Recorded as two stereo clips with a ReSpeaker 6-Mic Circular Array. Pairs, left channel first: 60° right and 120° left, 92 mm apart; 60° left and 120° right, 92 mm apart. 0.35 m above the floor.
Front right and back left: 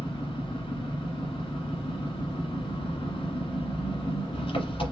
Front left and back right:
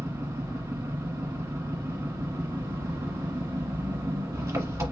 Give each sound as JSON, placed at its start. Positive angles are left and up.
{"t": 0.0, "sound": "an engine running", "azimuth_deg": -60, "distance_m": 1.6}